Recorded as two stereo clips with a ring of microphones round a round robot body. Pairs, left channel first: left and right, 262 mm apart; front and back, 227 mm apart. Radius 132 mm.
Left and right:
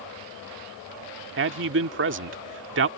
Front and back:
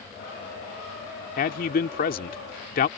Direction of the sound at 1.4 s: 50° right.